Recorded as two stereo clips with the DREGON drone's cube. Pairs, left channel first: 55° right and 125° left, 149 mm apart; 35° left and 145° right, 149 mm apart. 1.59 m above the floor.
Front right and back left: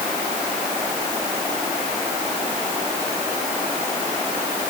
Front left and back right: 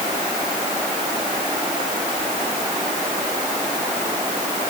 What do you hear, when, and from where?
Only background noise.